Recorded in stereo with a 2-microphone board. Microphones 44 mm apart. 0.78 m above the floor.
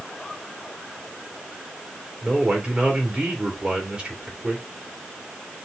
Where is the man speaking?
20° right (ahead or behind), 2 m.